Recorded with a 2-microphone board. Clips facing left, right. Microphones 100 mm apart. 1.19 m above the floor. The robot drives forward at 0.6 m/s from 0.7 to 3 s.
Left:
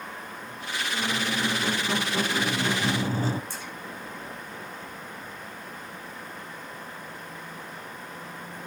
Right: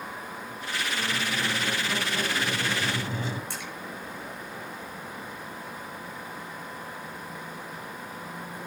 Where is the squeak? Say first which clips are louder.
Left 3 dB; 25° left (ahead or behind), 2 m; by 3.4 s 40° left (ahead or behind), 1.4 m.